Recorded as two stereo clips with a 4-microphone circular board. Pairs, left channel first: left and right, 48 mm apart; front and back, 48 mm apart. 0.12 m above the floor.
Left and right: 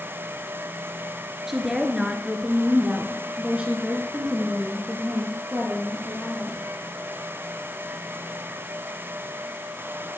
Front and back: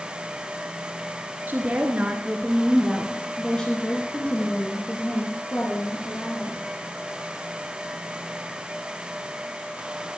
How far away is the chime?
I don't hear a chime.